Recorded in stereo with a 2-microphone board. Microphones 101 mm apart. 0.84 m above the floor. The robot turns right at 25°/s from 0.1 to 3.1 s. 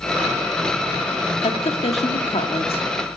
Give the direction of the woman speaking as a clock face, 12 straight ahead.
9 o'clock.